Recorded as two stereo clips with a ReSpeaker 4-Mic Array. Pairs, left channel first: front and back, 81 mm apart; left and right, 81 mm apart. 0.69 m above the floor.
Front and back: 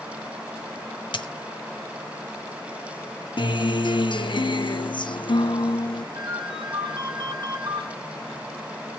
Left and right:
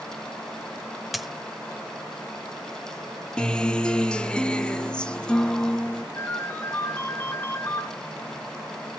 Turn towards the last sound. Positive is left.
turn(degrees=160)